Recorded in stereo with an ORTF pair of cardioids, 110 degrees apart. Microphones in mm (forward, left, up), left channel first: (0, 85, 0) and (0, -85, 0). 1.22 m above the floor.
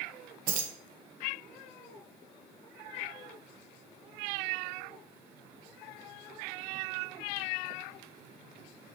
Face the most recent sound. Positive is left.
turn(degrees=-60)